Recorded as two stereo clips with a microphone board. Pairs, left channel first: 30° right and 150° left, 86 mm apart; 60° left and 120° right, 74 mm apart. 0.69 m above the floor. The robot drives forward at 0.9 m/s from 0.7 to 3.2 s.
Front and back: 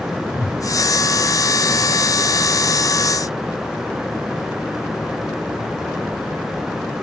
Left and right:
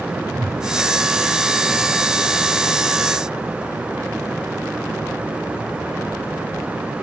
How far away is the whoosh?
About 5.5 m.